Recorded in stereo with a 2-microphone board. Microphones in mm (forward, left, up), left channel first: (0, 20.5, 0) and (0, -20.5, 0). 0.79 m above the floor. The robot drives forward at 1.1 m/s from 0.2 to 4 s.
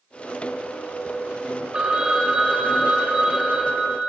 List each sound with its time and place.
1.7 s a phone ringing: 25° right (ahead or behind), 1.5 m; by 4.1 s 10° right (ahead or behind), 4 m